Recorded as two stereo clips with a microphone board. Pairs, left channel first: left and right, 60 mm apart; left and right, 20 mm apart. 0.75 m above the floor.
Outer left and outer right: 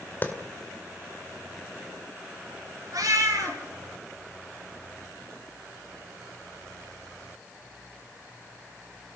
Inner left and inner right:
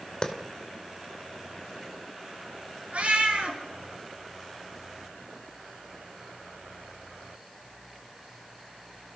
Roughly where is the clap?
Left.